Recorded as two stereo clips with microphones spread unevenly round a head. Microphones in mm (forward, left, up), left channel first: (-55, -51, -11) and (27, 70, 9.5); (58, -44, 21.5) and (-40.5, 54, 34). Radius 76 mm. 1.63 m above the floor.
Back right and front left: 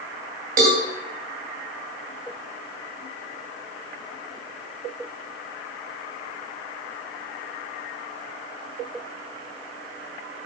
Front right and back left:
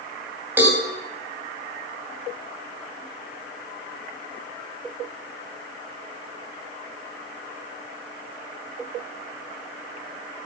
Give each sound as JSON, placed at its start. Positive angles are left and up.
{"t": 0.6, "sound": "a cowbell", "azimuth_deg": 60, "distance_m": 3.0}